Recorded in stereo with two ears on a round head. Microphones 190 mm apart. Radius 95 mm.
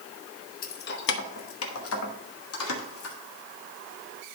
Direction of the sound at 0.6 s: 40° left (ahead or behind).